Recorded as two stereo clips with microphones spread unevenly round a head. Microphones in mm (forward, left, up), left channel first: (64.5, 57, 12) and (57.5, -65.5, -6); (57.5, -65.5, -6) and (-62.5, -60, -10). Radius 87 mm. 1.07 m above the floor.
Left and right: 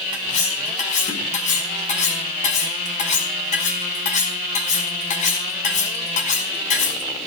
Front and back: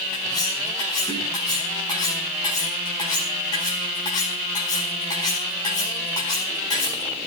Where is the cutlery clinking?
65° left, 5 m.